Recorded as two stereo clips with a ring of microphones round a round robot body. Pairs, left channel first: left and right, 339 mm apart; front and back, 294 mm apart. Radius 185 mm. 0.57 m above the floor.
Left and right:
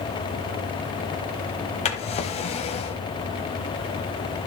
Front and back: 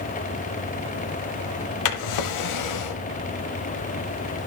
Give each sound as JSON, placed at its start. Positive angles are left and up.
{"t": 1.9, "sound": "a drawer", "azimuth_deg": 20, "distance_m": 0.8}